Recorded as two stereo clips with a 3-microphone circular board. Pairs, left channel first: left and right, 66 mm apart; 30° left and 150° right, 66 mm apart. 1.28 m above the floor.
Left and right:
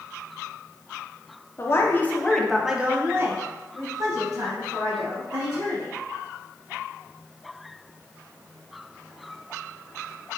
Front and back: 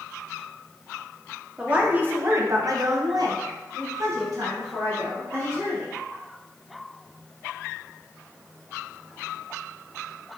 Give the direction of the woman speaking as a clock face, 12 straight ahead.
7 o'clock.